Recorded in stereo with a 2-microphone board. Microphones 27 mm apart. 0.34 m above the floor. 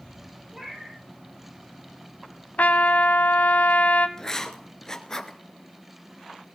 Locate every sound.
0.5 s a cat meowing: 20° right (ahead or behind), 6.5 m
2.6 s a trumpet: 80° left, 0.6 m
4.2 s writing: 20° left (ahead or behind), 0.8 m